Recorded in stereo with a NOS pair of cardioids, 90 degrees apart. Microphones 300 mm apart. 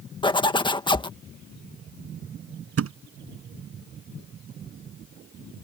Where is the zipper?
15° left.